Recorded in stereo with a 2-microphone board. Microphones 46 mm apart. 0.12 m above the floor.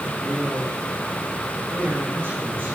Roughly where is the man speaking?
Right.